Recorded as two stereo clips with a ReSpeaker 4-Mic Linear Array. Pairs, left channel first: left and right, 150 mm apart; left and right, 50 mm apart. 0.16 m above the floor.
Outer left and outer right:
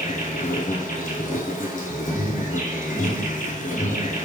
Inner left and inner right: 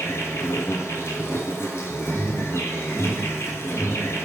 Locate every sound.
0.0 s an insect: 65° left (ahead or behind), 0.8 m
2.1 s an alarm: 10° left (ahead or behind), 1.4 m